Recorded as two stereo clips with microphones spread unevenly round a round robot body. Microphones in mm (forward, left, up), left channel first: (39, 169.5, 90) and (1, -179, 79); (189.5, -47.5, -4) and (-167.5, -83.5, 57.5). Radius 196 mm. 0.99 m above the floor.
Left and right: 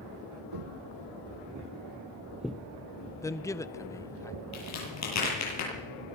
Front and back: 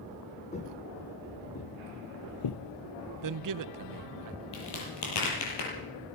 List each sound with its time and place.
0.5 s footsteps: 70° right, 2 m; by 2.6 s 5° left, 1.4 m
3.2 s a man speaking: 165° left, 0.8 m
4.5 s a crack: 40° left, 8.5 m